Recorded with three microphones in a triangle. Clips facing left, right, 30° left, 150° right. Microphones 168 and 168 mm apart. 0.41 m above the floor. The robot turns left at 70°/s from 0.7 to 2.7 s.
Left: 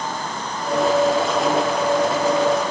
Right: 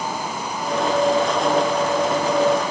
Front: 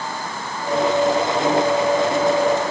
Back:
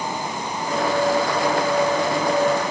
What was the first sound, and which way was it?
Only background noise.